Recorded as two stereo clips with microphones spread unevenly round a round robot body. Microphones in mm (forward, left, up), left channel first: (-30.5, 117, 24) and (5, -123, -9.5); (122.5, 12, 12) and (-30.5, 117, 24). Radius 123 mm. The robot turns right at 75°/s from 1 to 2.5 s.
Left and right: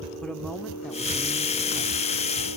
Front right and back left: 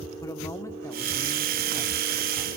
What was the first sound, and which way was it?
A man speaking, 5° right.